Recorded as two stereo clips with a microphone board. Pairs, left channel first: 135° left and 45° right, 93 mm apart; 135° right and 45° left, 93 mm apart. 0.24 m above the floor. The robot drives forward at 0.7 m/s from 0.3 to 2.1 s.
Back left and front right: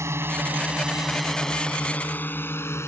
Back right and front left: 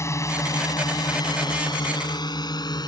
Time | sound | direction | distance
0.0 | a drone | 90° right | ?